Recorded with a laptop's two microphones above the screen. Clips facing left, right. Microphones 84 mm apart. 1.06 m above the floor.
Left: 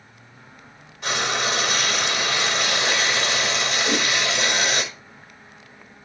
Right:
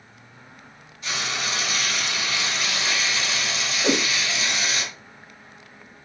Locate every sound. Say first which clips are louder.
1.0 s frying: left 5 dB; 80° left, 3.5 m
3.8 s a whoosh: right 4 dB; 75° right (ahead or behind), 2.5 m